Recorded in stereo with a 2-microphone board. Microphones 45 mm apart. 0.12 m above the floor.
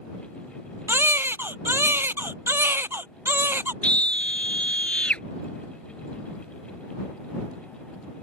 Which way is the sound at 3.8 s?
25° left (ahead or behind).